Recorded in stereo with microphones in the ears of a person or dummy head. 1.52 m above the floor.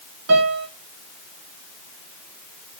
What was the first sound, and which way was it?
A piano, 80° right.